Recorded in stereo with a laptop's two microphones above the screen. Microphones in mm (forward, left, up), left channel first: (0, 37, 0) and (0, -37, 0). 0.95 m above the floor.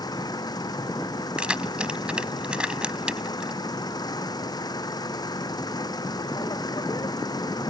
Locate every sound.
0.0 s an engine running: 65° left (ahead or behind)
1.4 s keys jangling: 10° right (ahead or behind)